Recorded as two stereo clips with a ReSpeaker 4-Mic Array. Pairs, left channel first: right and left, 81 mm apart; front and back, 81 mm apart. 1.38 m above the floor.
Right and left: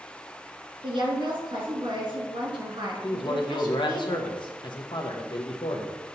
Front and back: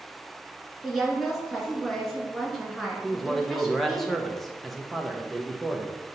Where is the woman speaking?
85° left, 2.5 m.